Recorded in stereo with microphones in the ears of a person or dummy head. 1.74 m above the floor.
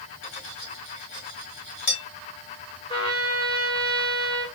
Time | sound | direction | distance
0.2 | cutlery clinking | 35° left (ahead or behind) | 1.4 m
2.9 | a trumpet | 25° left (ahead or behind) | 1.1 m